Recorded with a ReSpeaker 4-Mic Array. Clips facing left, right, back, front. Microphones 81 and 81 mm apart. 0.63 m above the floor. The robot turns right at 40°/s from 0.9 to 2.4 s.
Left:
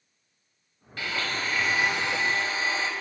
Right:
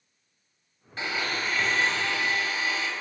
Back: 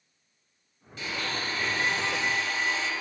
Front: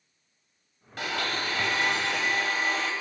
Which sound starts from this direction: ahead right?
A blender, at 1.0 s.